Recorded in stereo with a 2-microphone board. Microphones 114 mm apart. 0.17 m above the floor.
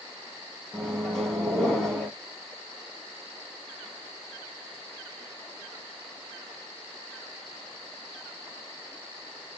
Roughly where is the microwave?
Centre.